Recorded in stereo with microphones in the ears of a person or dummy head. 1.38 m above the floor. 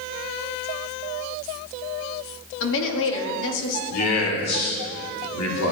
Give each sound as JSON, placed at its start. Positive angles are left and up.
{"t": 2.6, "sound": "a woman speaking", "side_deg": 70, "distance_m": 2.5}
{"t": 3.9, "sound": "a man speaking", "side_deg": 85, "distance_m": 4.5}